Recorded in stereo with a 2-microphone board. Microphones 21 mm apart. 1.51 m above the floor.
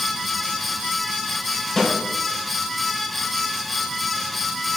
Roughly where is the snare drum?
Centre.